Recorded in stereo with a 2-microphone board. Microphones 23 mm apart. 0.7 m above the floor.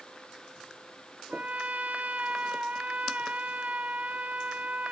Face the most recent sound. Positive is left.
turn(degrees=-70)  # may be behind; listen again after turning